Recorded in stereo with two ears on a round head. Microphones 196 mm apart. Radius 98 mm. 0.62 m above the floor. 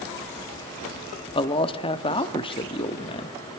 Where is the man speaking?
25° left (ahead or behind), 1.0 m.